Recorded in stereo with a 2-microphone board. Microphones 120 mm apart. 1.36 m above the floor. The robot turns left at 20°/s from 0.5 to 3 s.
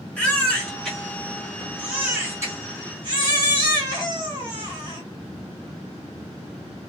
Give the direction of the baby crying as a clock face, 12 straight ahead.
12 o'clock.